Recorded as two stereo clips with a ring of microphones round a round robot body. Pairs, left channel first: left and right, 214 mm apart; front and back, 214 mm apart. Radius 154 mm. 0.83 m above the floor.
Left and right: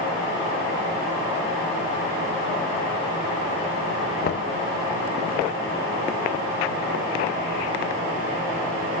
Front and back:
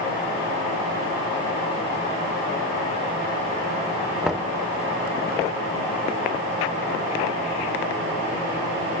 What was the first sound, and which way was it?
Knocking, 95° left.